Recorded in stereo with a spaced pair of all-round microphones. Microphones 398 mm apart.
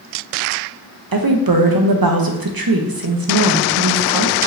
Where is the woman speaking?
60° right (ahead or behind), 0.7 m.